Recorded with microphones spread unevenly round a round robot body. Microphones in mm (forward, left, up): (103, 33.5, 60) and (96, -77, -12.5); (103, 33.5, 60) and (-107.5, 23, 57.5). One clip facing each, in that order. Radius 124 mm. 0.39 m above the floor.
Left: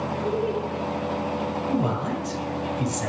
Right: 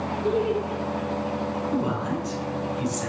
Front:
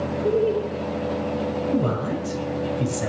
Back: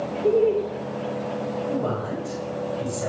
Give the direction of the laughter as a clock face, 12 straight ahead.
4 o'clock.